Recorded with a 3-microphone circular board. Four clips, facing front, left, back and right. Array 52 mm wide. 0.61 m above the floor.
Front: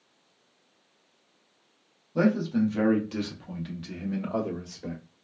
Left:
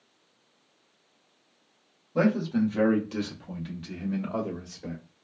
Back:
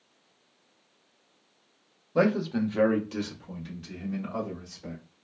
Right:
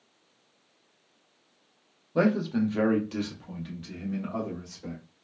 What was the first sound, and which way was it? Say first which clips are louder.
A man speaking: even, even; 160° right.